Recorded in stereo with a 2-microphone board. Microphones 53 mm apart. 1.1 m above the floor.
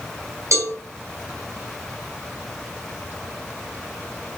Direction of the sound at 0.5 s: 70° right (ahead or behind).